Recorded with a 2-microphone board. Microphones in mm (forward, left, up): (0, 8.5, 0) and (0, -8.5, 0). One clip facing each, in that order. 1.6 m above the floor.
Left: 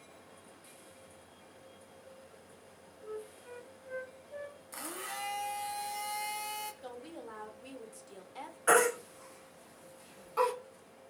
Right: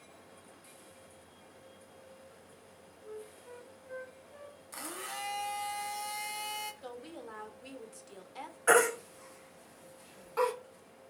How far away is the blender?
About 0.6 m.